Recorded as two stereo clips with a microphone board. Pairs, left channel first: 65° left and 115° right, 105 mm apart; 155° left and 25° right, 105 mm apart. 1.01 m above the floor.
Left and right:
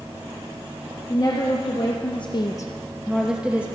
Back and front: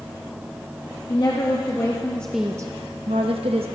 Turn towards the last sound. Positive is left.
turn(degrees=-35)